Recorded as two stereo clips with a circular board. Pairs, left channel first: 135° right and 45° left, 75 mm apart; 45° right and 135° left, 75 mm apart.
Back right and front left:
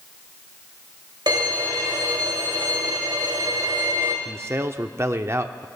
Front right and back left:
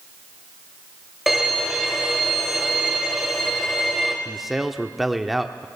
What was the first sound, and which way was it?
A violin, 50° left.